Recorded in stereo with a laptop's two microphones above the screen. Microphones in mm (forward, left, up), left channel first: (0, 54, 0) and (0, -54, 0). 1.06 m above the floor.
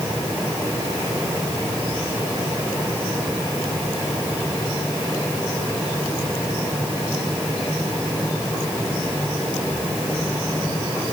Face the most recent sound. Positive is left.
No sound to turn to.